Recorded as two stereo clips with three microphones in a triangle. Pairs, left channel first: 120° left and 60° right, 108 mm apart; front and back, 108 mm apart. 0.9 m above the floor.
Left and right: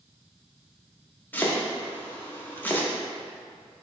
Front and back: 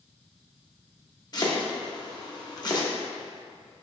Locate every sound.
1.3 s chopping: 50° left, 0.6 m